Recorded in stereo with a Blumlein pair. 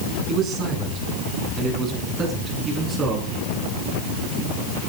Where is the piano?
I don't hear a piano.